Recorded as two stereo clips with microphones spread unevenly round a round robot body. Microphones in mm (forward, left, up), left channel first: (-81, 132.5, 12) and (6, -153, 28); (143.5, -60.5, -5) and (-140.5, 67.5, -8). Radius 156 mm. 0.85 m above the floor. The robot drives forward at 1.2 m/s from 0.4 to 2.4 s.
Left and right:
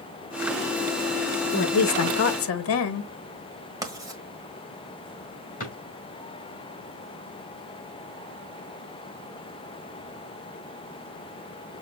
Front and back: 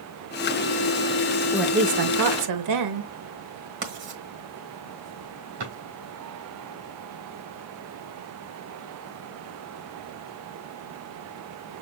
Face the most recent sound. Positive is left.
turn(degrees=170)